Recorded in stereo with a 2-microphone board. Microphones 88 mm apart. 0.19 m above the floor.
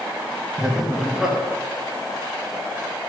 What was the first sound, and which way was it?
Laughter, 5° right (ahead or behind).